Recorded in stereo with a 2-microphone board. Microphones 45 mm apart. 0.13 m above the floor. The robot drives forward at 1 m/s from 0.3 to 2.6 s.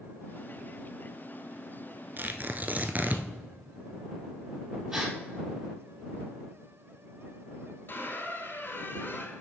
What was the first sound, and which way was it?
Tearing paper, 50° right (ahead or behind).